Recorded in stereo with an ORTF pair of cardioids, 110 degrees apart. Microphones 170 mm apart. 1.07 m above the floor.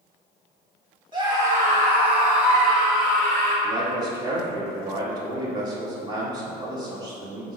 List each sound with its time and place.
1.1 s a scream: 30° right, 1.6 m; by 3.5 s straight ahead, 3 m
3.6 s a man speaking: 25° right, 1.3 m